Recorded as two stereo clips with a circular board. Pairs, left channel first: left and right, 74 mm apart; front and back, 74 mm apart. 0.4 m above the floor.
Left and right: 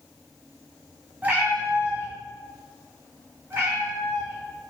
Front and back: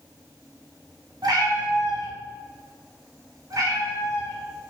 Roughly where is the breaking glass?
I don't hear breaking glass.